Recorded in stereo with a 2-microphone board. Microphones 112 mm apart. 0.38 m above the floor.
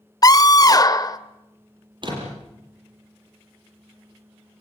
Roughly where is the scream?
Left.